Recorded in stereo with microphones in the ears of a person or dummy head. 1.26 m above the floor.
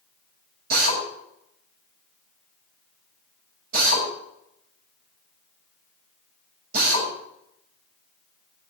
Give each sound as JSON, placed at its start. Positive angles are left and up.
{"t": 0.7, "sound": "a drill", "side_deg": -60, "distance_m": 7.0}